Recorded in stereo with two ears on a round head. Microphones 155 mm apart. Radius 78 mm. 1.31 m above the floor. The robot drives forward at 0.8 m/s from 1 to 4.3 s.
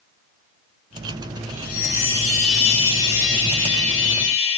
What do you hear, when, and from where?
1.5 s a chime: 50° left (ahead or behind), 1.8 m; by 4.6 s 40° left (ahead or behind), 2 m